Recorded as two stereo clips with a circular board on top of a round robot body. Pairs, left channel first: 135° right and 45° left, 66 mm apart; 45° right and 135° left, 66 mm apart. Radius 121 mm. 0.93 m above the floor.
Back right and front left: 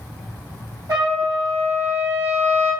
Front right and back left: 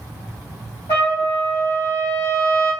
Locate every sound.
0.9 s a trumpet: straight ahead, 1.0 m